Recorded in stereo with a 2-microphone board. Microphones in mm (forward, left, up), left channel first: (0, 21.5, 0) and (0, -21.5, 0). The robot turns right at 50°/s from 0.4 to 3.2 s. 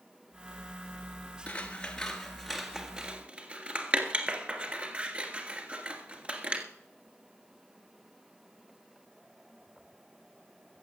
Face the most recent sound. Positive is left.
turn(degrees=-25)  # may be behind; listen again after turning